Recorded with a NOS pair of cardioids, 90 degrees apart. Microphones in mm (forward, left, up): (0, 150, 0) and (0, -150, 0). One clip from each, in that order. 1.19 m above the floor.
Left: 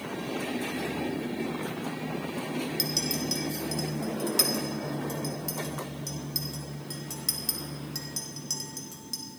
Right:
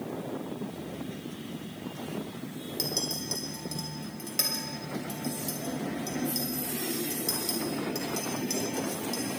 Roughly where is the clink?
Ahead.